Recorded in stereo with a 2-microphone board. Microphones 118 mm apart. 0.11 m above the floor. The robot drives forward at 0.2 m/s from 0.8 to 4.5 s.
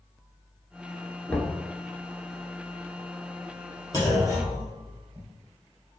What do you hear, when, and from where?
1.3 s knocking: 10° left (ahead or behind), 0.9 m
3.9 s a clunk: 30° left (ahead or behind), 2.5 m